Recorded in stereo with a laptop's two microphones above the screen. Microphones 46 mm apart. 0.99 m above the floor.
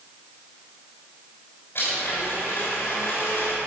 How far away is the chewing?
I don't hear chewing.